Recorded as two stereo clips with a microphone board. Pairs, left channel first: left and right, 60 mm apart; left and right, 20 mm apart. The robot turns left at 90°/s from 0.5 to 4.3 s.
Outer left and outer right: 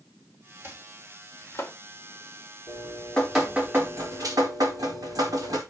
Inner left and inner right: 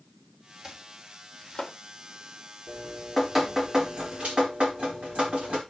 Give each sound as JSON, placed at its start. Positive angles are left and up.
{"t": 0.6, "sound": "chopping", "side_deg": -35, "distance_m": 3.0}
{"t": 2.7, "sound": "dripping", "azimuth_deg": 60, "distance_m": 4.5}